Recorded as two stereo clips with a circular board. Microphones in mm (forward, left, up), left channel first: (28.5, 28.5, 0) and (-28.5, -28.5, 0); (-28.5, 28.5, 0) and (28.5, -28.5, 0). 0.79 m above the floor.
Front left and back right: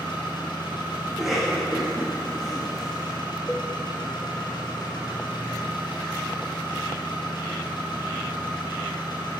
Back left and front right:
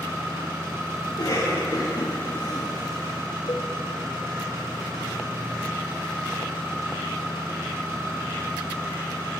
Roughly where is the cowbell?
Behind left.